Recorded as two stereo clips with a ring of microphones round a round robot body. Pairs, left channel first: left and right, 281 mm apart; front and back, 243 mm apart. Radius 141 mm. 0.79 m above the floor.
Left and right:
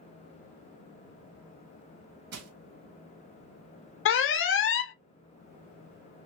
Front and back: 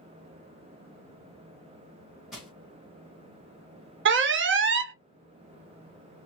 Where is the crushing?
95° right, 1.2 m.